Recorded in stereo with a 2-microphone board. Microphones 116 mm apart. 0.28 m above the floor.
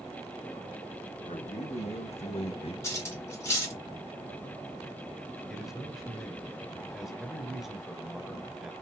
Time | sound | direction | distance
1.3 | a man speaking | 70° left (ahead or behind) | 3 m
2.8 | cutlery clinking | 25° left (ahead or behind) | 2.5 m
5.5 | a man speaking | 5° right (ahead or behind) | 1.2 m